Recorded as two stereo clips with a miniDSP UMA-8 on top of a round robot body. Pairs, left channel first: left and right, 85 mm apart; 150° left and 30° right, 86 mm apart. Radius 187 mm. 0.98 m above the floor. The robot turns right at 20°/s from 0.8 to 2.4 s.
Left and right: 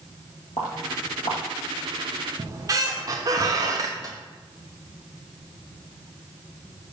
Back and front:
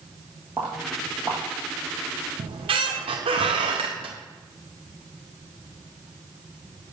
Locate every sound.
0.6 s footsteps: 80° left, 1.0 m; by 1.4 s 95° left, 1.0 m
2.4 s a squeak: 40° right, 0.5 m